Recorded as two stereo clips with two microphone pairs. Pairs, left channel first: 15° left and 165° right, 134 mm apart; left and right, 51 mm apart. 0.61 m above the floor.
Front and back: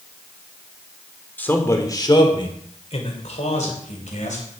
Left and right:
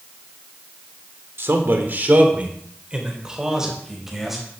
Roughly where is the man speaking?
Ahead right.